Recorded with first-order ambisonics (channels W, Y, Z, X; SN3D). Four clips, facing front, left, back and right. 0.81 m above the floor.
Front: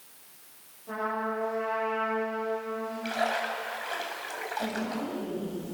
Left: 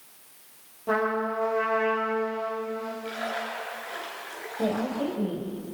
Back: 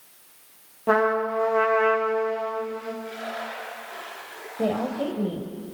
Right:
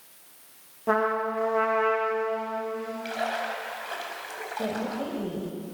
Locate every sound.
0.9 s a trumpet: 160° right, 9.5 m
3.0 s a splash: 30° right, 6.5 m
4.6 s a woman speaking: 170° left, 4 m